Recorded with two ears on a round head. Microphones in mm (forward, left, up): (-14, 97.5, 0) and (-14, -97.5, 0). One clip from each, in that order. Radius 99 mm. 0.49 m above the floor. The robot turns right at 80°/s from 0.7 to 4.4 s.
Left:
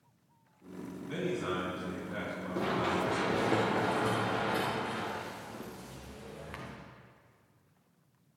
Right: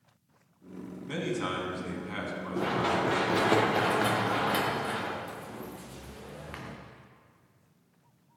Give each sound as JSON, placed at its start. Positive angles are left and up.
{"t": 1.1, "sound": "a man speaking", "azimuth_deg": -135, "distance_m": 3.5}
{"t": 2.5, "sound": "running footsteps", "side_deg": 20, "distance_m": 3.0}